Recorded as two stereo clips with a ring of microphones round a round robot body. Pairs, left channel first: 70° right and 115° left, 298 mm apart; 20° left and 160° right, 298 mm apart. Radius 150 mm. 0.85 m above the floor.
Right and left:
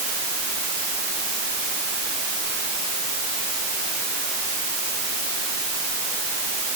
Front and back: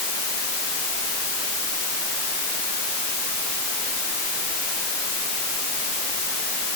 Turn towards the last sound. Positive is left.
No sound to turn to.